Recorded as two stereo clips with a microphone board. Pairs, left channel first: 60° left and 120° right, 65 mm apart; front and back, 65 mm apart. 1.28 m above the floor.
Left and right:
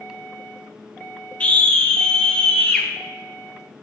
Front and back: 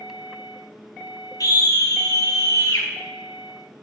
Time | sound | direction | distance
1.4 | a scream | 10° right | 1.9 m